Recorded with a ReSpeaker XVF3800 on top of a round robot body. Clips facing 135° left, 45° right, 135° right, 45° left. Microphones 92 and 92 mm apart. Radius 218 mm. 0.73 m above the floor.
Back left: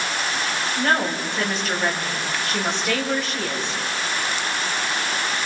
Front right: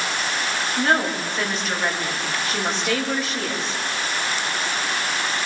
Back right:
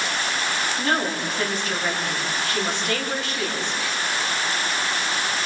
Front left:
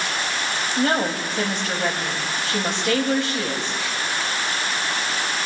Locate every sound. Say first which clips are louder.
0.8 s a woman speaking: front right 1 dB, front left 5 dB; 45° left, 7 m